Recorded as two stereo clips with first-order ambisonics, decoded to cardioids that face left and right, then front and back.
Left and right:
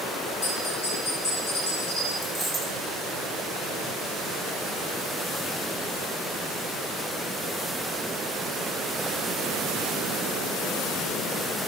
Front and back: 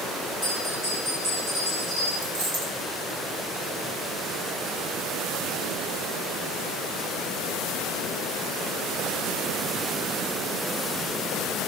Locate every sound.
0.4 s a bell: 120° left, 2.5 m
2.2 s a dropped coin: 170° left, 3.5 m